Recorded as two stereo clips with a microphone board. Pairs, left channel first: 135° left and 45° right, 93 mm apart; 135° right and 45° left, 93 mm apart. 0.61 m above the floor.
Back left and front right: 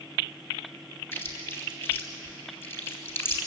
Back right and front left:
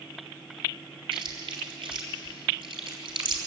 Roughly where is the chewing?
Left.